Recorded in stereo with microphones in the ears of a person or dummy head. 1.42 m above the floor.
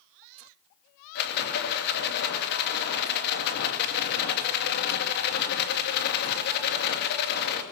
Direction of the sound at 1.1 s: 55° left (ahead or behind).